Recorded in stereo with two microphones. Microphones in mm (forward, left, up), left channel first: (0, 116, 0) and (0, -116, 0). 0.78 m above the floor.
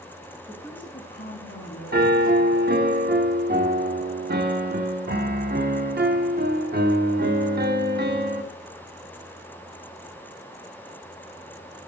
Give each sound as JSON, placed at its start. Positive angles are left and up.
{"t": 0.5, "sound": "a woman speaking", "side_deg": 0, "distance_m": 1.3}
{"t": 1.9, "sound": "a piano", "side_deg": -45, "distance_m": 0.8}